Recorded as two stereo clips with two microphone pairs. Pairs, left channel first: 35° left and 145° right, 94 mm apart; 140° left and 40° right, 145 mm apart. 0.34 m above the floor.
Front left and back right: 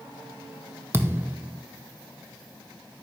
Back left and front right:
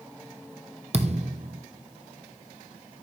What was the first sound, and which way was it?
A thud, 85° right.